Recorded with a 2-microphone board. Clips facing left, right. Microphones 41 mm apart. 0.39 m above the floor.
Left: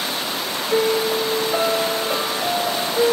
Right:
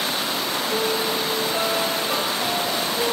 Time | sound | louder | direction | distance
0.7 | a piano | left 7 dB | 30° left (ahead or behind) | 3 m